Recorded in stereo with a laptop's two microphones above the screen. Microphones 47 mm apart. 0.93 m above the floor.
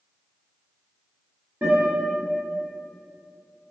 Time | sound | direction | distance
1.6 | a guitar | 35° right (ahead or behind) | 1.1 m